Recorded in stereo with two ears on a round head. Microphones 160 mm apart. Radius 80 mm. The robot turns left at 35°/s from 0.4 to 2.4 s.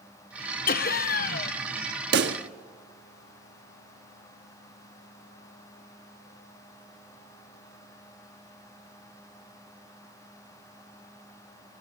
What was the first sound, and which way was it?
Laughter, 100° left.